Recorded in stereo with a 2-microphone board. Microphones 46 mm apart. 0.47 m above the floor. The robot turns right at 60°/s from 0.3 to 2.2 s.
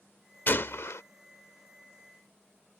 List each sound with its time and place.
0.5 s a gunshot: 50° left; by 1.0 s 85° left